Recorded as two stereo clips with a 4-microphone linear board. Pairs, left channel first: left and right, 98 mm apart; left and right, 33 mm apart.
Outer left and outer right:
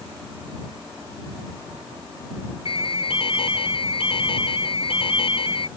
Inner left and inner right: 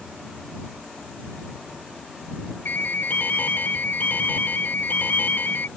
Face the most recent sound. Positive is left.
turn(degrees=75)  # may be behind; listen again after turning